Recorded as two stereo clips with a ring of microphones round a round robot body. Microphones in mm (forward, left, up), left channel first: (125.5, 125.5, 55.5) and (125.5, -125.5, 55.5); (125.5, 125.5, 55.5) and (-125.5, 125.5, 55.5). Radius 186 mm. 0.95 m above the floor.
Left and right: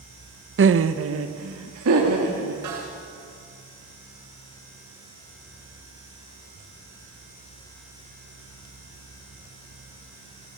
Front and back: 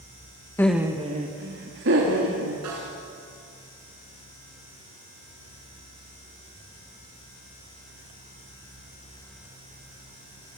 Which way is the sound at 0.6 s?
80° right.